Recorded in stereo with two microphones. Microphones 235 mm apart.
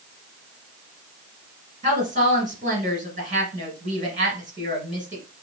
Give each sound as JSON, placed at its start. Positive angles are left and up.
{"t": 1.8, "sound": "a woman speaking", "side_deg": -35, "distance_m": 1.5}